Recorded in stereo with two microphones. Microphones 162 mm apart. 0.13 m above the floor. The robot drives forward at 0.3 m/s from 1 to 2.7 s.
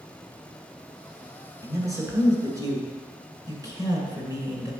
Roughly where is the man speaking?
Centre.